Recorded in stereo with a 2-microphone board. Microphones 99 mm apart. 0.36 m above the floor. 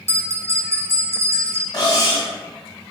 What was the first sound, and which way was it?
A bell, 30° right (ahead or behind).